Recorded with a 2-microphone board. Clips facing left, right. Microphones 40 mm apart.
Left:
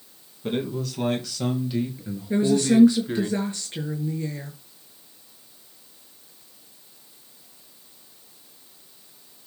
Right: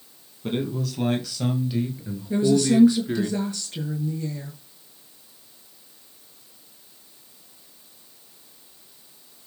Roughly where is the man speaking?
Centre.